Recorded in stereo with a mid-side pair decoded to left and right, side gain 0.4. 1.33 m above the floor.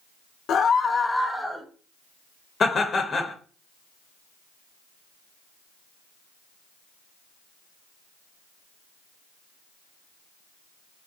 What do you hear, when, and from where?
0.5 s a scream: 65° left, 0.6 m; by 1.6 s straight ahead, 1.0 m
2.6 s laughter: 45° left, 0.6 m